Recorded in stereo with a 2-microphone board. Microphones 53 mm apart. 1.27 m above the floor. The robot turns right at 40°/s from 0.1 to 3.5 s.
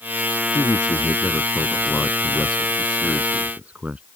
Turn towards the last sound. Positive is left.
turn(degrees=-155)